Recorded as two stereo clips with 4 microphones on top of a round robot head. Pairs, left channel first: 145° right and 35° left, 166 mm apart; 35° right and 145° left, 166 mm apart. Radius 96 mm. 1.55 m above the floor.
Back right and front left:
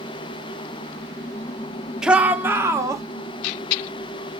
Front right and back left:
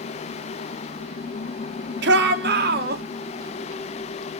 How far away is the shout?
About 1.4 m.